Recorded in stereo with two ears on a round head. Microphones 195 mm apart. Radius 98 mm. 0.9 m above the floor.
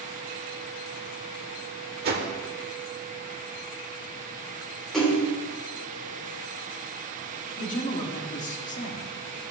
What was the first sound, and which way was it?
A whoosh, 45° right (ahead or behind).